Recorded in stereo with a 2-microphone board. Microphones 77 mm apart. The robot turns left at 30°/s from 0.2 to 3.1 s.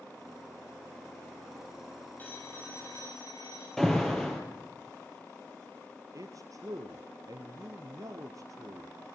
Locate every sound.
2.2 s a phone ringing: 25° left (ahead or behind), 6.5 m; by 3.7 s 50° left (ahead or behind), 6.5 m
3.8 s an alarm: 5° left (ahead or behind), 4 m
6.1 s a man speaking: 50° right (ahead or behind), 2.0 m